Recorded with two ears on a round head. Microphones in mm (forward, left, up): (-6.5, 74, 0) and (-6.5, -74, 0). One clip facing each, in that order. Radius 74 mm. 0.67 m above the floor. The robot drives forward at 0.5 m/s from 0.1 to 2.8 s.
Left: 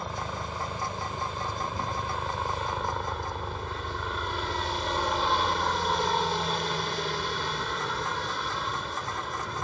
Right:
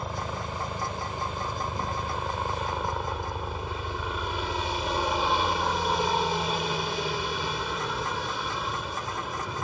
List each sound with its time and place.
0.0 s a helicopter: 5° right (ahead or behind)